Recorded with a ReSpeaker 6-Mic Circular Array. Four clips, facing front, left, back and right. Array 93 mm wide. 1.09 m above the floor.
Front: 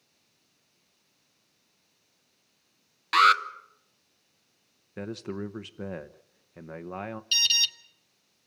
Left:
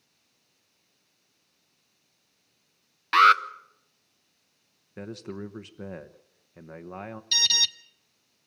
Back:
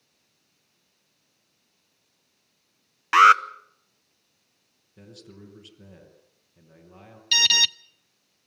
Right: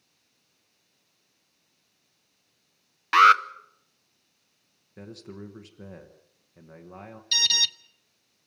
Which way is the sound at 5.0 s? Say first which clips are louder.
Left 5 dB, front 12 dB; 25° left.